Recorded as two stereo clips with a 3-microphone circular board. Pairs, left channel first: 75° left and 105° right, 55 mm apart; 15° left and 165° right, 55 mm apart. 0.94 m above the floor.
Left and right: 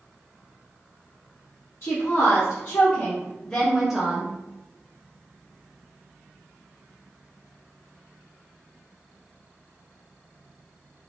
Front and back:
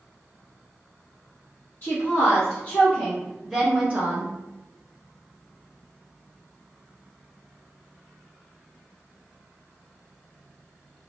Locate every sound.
1.8 s a woman speaking: 55° left, 1.2 m; by 4.3 s 165° right, 0.7 m